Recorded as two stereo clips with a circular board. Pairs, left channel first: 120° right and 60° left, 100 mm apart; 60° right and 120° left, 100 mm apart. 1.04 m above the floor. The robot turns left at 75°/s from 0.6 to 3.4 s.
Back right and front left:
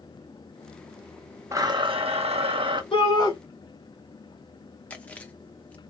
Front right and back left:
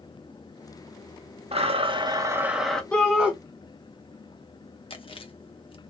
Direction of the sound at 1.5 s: 120° left.